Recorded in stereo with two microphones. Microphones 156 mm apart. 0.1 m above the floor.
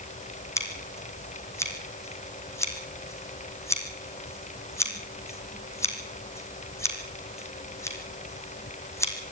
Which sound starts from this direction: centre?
Scissors, at 0.6 s.